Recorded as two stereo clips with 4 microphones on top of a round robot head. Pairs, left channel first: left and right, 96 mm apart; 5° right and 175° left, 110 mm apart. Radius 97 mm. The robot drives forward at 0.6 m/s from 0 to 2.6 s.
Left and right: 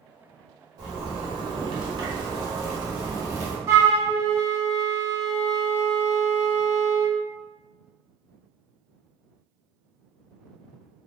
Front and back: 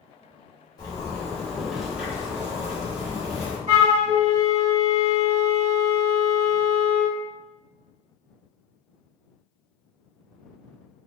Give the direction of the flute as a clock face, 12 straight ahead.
5 o'clock.